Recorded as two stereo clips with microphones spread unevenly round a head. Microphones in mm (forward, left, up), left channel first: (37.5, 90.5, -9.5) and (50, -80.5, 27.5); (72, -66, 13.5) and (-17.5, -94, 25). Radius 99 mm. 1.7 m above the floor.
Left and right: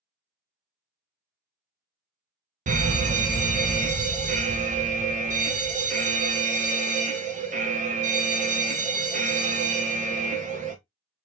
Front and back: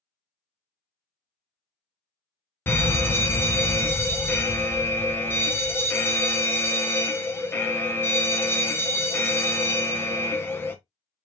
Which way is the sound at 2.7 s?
40° right.